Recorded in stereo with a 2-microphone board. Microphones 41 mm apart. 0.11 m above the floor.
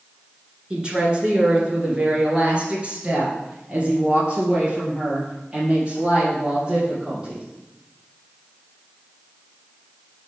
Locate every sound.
0.7 s a woman speaking: 25° right (ahead or behind), 1.8 m